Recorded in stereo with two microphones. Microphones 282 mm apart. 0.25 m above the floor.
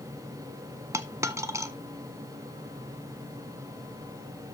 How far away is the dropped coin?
About 0.8 m.